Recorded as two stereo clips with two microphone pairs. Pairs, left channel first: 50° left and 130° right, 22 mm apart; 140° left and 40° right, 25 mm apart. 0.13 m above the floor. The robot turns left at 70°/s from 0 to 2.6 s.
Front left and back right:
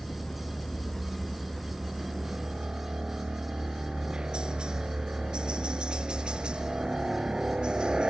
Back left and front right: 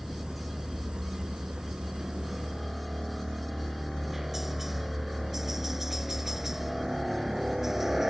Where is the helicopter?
50° left; by 8.1 s 110° right.